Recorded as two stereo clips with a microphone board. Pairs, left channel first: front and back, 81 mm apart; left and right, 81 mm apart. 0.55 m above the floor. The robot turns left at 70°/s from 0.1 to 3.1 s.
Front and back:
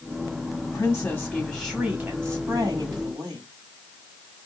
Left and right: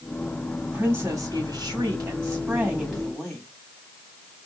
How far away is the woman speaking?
About 1.7 m.